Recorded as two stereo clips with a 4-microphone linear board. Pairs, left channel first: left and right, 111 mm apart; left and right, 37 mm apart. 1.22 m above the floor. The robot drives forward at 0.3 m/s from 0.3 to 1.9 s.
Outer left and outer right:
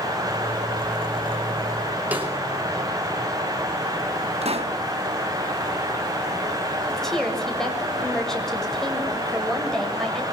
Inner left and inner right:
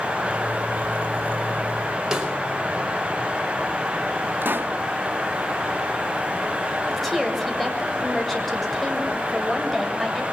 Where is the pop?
65° right (ahead or behind), 2.5 m.